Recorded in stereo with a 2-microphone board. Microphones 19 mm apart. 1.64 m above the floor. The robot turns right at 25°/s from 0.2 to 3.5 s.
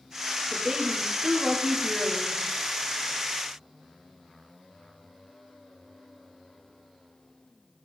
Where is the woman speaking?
40° right, 1.4 m; by 2.4 s 10° left, 1.4 m.